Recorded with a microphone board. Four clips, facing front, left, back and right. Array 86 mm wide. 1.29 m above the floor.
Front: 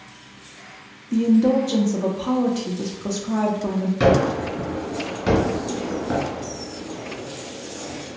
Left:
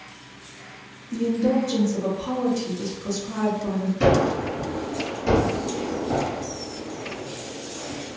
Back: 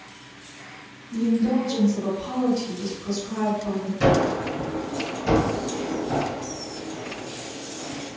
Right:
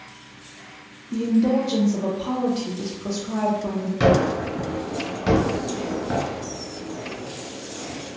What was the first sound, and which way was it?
A woman speaking, 15° right.